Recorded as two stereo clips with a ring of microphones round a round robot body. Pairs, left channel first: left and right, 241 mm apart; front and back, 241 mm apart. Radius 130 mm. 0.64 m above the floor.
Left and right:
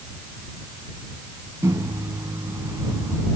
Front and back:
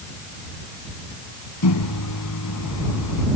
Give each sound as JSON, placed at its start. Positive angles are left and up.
{"t": 1.6, "sound": "a microwave", "azimuth_deg": -10}